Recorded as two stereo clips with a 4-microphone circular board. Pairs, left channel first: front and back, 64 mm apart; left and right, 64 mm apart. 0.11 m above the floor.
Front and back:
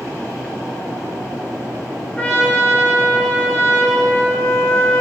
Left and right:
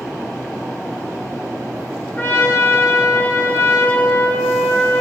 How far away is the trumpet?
About 0.8 m.